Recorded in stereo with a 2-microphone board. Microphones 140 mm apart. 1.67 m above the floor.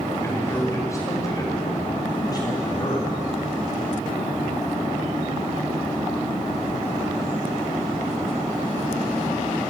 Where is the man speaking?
20° left (ahead or behind), 8 m; by 3.1 s 30° left (ahead or behind), 10 m.